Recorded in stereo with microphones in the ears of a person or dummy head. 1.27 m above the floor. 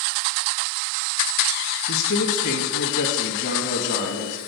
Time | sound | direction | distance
1.9 | a man speaking | 60° left (ahead or behind) | 1.3 m